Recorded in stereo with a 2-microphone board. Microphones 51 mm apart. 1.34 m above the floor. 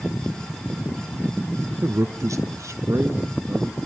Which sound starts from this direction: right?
A man speaking, at 1.8 s.